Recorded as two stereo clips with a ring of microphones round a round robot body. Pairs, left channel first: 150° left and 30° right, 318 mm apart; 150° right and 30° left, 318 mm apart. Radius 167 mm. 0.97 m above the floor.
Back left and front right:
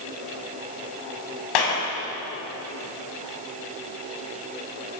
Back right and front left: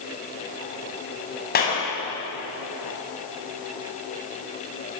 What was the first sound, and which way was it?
A clap, 145° left.